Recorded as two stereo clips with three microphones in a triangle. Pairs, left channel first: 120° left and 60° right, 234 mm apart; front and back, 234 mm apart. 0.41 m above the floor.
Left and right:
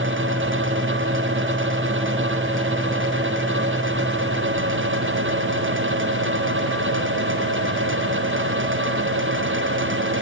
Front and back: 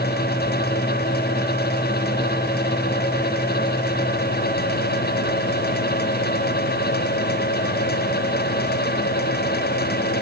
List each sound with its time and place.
Only background noise.